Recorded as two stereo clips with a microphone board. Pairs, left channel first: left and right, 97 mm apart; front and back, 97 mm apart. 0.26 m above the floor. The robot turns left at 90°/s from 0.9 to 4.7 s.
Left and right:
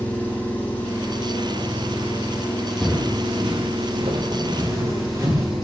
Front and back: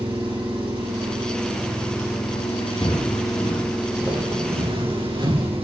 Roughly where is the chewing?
No chewing in this recording.